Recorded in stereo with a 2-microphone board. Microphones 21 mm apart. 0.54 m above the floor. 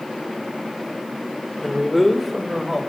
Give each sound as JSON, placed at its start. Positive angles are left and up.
{"t": 1.6, "sound": "a man speaking", "side_deg": 0, "distance_m": 1.7}